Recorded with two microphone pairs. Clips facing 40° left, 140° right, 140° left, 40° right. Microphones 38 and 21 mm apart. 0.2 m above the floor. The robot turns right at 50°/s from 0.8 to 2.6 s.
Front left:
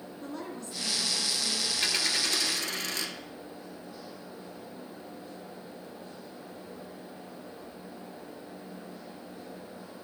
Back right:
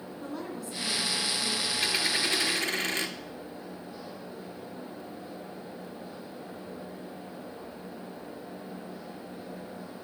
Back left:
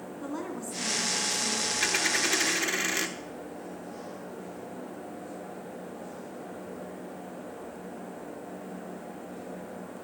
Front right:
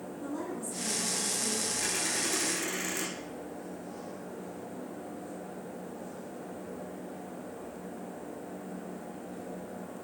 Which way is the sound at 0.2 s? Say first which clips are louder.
Back right 2 dB, back left 1 dB; 140° left.